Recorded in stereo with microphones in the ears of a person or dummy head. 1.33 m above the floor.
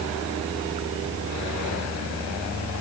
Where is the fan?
75° right (ahead or behind).